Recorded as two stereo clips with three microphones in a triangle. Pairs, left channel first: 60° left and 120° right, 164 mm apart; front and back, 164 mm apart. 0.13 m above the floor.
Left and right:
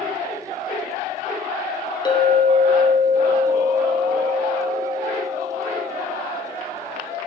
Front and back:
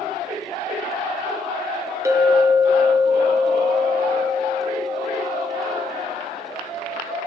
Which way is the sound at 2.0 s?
110° left.